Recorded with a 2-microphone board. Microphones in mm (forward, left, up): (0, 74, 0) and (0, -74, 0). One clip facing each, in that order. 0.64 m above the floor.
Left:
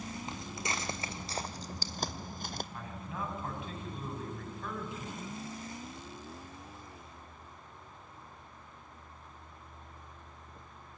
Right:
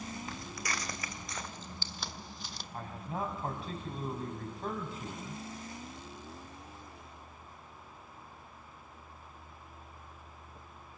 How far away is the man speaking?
About 4.5 m.